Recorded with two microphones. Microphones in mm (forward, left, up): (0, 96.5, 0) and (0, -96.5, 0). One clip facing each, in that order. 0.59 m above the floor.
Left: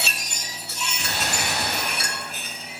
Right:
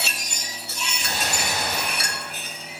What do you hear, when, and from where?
1.0 s a gunshot: 75° left (ahead or behind), 3.5 m